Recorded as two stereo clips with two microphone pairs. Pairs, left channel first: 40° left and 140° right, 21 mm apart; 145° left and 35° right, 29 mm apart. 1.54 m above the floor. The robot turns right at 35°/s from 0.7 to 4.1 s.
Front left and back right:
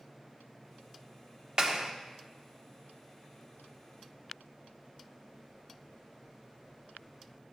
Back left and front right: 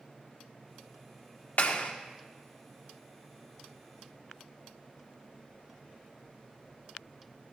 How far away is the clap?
About 1.1 m.